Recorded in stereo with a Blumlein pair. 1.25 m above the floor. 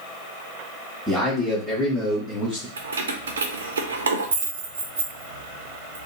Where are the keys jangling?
70° right, 0.7 m.